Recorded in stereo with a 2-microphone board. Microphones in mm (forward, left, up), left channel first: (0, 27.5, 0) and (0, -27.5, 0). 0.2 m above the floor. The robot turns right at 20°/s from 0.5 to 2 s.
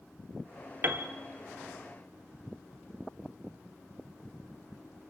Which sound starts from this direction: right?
A piano, at 0.8 s.